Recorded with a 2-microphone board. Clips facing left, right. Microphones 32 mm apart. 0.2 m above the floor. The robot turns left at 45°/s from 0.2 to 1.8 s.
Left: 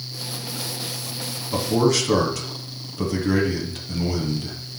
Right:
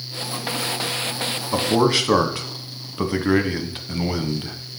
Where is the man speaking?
40° right (ahead or behind), 1.2 m.